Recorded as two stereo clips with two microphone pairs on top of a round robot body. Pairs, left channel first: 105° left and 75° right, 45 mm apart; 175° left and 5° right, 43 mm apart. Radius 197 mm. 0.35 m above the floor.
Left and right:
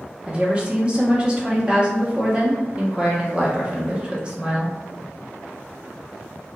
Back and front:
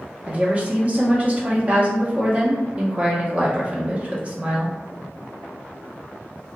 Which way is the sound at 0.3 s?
30° right.